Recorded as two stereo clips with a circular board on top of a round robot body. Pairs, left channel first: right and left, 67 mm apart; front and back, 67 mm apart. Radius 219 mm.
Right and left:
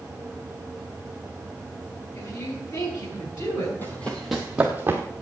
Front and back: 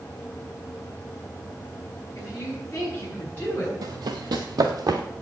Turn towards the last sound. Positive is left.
turn(degrees=150)